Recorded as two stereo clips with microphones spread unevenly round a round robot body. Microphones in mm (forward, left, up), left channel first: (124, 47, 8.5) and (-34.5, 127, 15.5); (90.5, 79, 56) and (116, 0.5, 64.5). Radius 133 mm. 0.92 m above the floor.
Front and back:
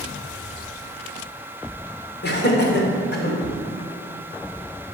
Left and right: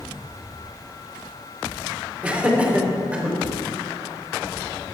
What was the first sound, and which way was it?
Laughter, 5° left.